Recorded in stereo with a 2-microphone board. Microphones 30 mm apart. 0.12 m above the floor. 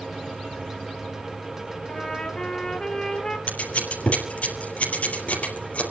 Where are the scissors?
50° left (ahead or behind), 3.5 m.